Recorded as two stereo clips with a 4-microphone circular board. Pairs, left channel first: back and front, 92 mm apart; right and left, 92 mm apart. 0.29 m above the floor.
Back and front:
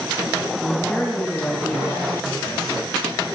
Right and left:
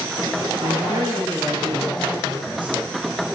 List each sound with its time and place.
0.6 s a woman speaking: 95° left, 2.5 m